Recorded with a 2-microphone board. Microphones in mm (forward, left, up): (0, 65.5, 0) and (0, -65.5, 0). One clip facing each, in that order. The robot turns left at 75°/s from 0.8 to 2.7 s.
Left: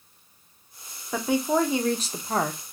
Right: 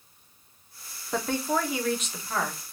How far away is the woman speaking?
About 0.6 m.